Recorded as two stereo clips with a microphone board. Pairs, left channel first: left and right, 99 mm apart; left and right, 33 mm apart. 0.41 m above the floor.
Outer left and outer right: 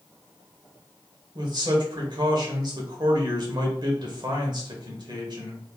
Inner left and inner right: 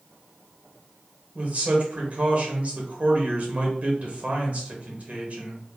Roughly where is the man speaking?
Right.